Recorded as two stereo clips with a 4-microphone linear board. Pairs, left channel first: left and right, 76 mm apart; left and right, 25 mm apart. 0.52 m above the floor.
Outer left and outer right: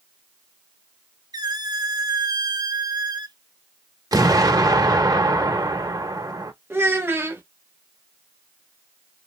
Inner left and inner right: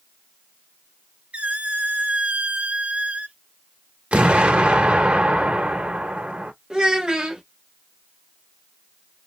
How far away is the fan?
No fan in this recording.